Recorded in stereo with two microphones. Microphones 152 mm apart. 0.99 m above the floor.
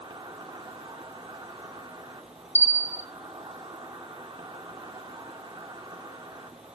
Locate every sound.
0.0 s an insect: 30° right (ahead or behind), 1.1 m
2.5 s a bell: 15° left (ahead or behind), 0.6 m